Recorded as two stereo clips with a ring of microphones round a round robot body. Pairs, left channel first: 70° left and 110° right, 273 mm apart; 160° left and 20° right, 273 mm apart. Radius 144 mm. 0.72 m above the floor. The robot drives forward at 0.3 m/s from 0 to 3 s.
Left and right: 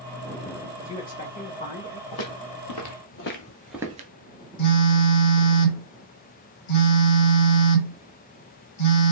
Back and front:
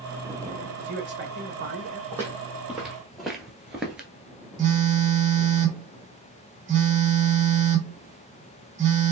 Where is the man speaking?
15° left, 1.1 m; by 2.0 s 25° left, 0.8 m.